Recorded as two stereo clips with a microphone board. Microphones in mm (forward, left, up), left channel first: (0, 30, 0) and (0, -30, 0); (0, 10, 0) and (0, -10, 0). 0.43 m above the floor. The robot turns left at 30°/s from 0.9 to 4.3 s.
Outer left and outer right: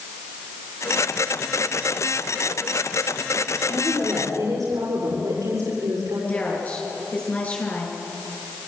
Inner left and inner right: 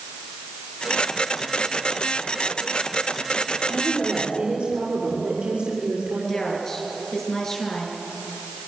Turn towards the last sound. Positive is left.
turn(degrees=25)  # may be behind; listen again after turning